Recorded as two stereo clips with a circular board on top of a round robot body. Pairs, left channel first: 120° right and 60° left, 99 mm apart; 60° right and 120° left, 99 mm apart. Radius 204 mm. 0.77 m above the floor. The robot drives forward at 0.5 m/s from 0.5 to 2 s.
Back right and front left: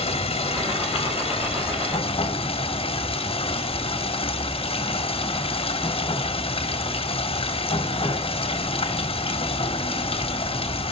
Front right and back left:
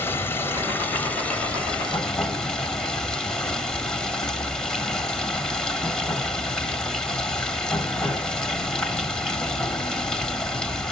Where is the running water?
130° right, 1.8 m; by 10.9 s 145° right, 2.5 m.